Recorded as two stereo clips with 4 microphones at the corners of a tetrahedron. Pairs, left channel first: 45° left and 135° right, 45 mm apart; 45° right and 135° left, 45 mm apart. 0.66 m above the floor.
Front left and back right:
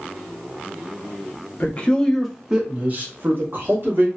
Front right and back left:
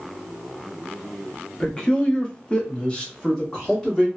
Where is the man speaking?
15° left, 0.7 m; by 4.1 s 120° right, 1.3 m.